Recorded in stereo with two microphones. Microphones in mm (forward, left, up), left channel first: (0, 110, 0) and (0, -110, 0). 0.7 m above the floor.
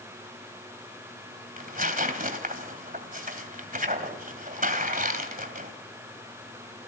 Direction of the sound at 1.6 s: 40° right (ahead or behind).